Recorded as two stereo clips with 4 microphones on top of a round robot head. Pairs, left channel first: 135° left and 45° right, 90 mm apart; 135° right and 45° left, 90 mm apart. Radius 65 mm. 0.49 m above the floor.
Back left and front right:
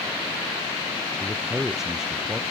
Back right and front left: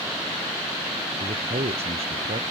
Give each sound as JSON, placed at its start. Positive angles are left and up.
{"t": 1.2, "sound": "a man speaking", "azimuth_deg": 40}